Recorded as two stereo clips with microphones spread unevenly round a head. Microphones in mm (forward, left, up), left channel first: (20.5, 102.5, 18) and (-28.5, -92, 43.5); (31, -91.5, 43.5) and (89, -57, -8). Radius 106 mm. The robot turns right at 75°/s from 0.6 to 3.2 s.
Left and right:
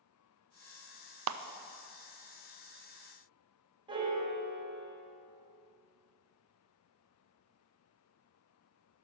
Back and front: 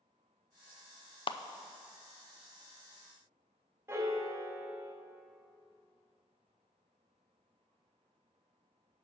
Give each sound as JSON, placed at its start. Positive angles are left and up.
{"t": 1.3, "sound": "a clap", "azimuth_deg": -130, "distance_m": 0.5}
{"t": 3.9, "sound": "a piano", "azimuth_deg": -40, "distance_m": 1.3}